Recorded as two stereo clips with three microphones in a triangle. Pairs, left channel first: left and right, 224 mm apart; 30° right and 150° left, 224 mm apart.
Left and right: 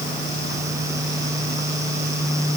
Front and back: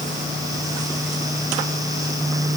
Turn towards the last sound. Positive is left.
No sound to turn to.